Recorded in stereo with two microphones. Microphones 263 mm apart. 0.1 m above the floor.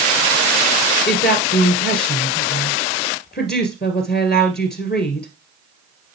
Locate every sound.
1.1 s a woman speaking: 40° left (ahead or behind), 2 m